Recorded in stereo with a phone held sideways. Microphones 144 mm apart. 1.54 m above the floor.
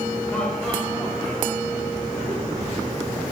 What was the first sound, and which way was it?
Laughter, 5° left (ahead or behind).